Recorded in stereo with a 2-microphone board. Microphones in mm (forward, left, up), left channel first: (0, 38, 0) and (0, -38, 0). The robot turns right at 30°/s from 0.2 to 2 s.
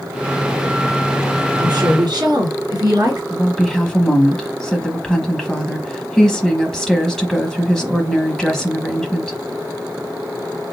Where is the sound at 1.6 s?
60° right (ahead or behind), 3 m.